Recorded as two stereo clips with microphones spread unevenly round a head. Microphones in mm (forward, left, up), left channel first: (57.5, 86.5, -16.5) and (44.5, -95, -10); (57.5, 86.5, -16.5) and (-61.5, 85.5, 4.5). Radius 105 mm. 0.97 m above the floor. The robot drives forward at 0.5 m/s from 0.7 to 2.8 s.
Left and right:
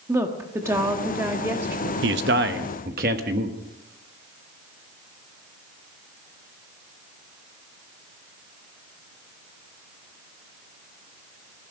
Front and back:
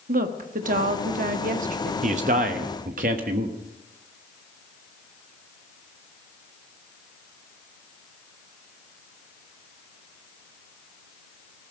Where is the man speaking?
125° right, 0.9 m; by 3.6 s 145° right, 1.2 m.